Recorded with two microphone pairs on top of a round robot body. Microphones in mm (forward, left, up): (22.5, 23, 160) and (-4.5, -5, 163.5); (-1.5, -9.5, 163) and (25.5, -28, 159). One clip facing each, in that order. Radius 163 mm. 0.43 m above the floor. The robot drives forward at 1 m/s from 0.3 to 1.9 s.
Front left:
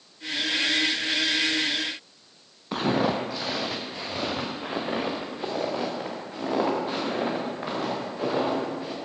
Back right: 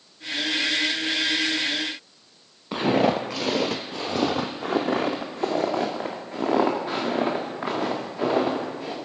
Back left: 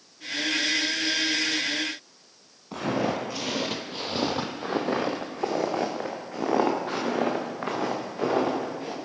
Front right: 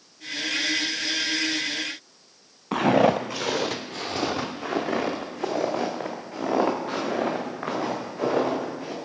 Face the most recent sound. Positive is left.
turn(degrees=-175)